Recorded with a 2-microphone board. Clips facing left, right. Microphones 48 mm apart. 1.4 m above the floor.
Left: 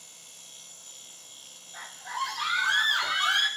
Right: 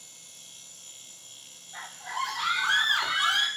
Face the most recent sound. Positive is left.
turn(degrees=5)  # may be behind; listen again after turning